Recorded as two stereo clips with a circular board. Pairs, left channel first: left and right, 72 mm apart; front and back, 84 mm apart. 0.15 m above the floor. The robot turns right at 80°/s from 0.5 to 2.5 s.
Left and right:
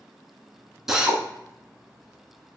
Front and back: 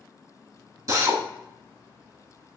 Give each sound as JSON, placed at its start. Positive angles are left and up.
{"t": 0.9, "sound": "a drill", "azimuth_deg": -170, "distance_m": 0.9}